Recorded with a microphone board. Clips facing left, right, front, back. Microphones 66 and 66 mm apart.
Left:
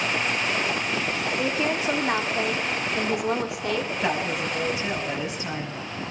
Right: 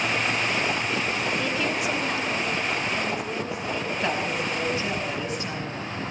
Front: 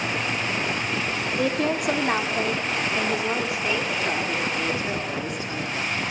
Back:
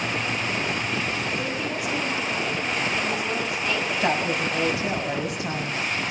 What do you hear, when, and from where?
1.4 s a woman speaking: 20° left, 2 m; by 3.9 s 75° left, 2.5 m
4.0 s a woman speaking: 170° left, 6.5 m